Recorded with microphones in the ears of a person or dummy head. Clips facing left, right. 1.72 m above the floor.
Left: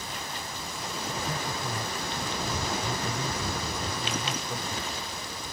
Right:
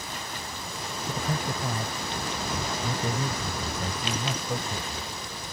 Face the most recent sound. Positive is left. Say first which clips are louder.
# right 4 dB
turn(degrees=-50)  # may be behind; listen again after turning